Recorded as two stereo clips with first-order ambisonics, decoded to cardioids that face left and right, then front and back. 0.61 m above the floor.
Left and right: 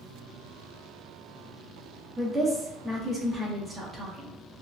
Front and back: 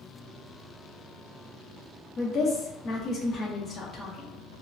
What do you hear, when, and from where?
2.2 s a woman speaking: 30° right, 0.6 m